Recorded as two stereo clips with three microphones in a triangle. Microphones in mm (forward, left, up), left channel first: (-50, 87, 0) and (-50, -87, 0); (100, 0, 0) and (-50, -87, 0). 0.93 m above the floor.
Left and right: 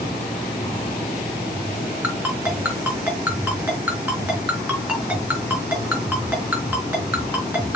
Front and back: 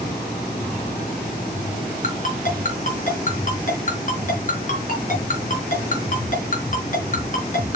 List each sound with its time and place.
2.0 s a ringtone: 10° right, 4 m